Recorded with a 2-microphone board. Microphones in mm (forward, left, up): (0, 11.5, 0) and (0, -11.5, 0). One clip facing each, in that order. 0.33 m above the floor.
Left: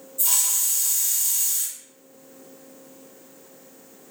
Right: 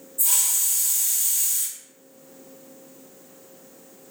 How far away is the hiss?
About 2.0 m.